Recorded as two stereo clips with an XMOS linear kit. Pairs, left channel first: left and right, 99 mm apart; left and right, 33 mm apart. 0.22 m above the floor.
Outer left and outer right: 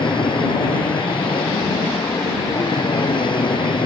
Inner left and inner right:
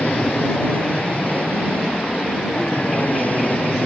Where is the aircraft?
55° left (ahead or behind).